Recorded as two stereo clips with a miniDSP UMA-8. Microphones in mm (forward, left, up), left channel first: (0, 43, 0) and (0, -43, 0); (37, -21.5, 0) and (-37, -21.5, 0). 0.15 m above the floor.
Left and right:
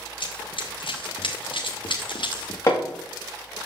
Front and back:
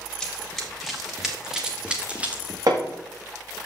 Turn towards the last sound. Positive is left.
turn(degrees=140)